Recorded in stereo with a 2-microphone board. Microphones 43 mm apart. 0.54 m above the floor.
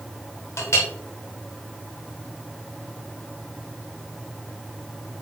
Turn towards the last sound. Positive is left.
turn(degrees=80)